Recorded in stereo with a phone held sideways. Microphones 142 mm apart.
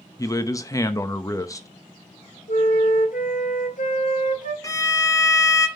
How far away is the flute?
About 1.5 m.